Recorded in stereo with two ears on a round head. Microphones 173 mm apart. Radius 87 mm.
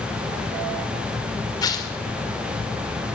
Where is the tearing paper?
20° left (ahead or behind), 2.5 m.